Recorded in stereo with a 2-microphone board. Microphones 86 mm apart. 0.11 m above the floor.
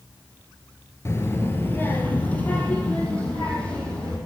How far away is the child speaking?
About 1.0 m.